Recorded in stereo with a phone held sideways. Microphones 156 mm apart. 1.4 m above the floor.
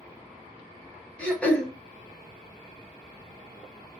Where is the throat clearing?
10° left (ahead or behind), 0.7 m.